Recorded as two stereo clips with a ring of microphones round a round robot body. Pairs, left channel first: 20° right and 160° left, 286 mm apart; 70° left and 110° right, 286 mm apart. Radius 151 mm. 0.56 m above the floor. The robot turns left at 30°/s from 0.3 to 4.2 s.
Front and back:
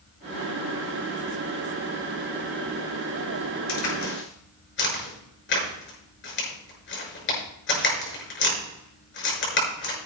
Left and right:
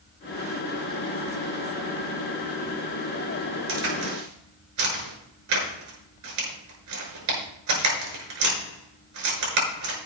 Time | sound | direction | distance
3.7 | a crack | 60° right | 6.5 m